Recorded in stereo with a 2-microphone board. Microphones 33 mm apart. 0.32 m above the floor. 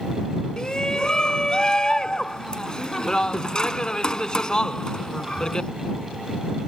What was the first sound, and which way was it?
A shout, 25° left (ahead or behind).